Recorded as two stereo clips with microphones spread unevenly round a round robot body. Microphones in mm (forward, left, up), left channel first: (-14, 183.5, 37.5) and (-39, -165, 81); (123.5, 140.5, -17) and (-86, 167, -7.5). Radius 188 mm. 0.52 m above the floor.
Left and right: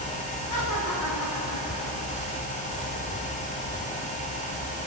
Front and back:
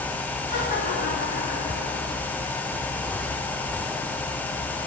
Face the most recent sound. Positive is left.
turn(degrees=50)